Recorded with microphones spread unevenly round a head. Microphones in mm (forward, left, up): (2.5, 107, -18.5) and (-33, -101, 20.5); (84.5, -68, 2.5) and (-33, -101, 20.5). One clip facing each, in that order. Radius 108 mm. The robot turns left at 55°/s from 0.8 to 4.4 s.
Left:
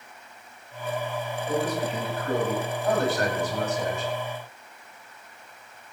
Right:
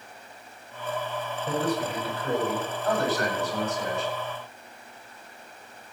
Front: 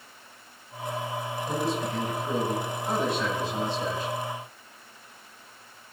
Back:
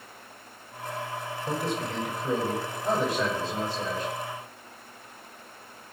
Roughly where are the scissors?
I don't hear scissors.